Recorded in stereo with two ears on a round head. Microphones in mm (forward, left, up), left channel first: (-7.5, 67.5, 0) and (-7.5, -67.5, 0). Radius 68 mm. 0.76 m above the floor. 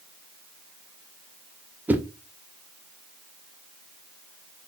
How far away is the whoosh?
About 0.5 m.